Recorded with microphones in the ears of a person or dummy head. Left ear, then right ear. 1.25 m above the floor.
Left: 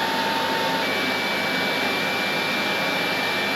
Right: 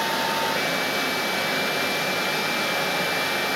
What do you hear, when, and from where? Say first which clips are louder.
0.0 s a fan: left 1 dB; 30° right (ahead or behind), 0.9 m